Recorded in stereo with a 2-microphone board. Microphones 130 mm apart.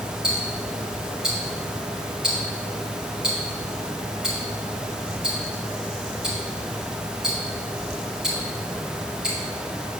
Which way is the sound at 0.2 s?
5° right (ahead or behind).